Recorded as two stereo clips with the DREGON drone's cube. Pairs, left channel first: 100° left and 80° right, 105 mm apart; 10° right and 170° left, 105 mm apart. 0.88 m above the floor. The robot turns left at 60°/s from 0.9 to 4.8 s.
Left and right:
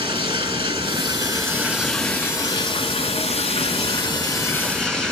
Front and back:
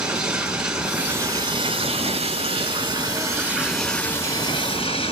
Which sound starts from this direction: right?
Running water, at 0.0 s.